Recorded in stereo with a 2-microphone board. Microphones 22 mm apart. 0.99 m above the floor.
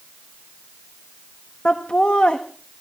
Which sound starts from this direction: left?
Laughter, at 1.6 s.